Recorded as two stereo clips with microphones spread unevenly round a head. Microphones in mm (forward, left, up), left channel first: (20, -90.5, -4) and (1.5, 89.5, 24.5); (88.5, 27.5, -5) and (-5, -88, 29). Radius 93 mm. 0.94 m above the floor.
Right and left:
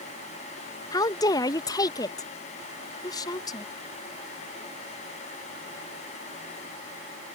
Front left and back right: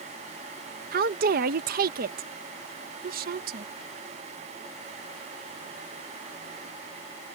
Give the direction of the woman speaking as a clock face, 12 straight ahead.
5 o'clock.